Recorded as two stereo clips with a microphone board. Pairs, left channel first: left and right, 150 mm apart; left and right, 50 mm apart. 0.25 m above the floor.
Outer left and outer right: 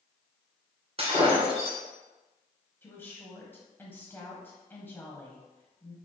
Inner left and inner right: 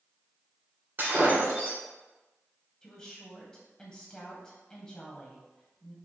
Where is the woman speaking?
15° left (ahead or behind), 1.1 m.